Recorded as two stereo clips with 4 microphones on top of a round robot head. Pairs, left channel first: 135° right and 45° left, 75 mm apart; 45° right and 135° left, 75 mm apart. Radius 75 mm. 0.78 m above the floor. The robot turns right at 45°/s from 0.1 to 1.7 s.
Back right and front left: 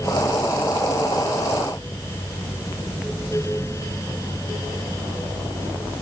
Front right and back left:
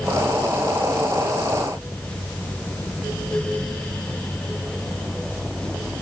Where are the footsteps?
No footsteps in this recording.